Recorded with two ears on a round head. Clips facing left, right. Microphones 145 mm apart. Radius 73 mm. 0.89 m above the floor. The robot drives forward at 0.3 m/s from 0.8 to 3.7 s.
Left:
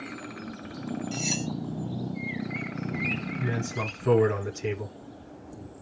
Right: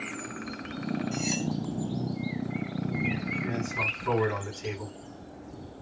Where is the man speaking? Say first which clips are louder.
Left 1 dB; 45° left (ahead or behind), 8.5 m.